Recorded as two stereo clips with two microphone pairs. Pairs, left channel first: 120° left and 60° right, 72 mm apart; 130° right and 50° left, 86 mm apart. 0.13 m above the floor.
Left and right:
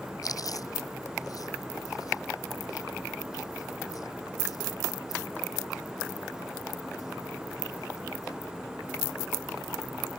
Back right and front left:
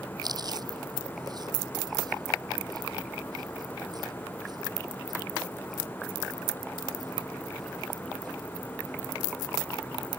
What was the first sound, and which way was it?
Chewing, 90° left.